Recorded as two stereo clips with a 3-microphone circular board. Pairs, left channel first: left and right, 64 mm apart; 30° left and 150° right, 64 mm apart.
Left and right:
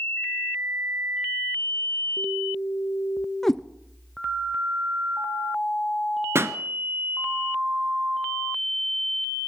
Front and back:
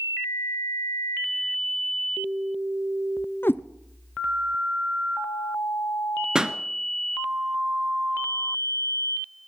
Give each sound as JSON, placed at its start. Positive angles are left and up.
{"t": 3.4, "sound": "a cat meowing", "azimuth_deg": 5, "distance_m": 0.5}
{"t": 6.3, "sound": "a pop", "azimuth_deg": -75, "distance_m": 0.8}